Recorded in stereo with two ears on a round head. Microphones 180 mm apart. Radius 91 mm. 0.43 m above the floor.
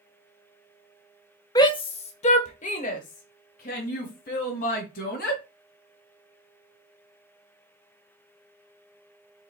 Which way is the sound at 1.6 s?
20° left (ahead or behind).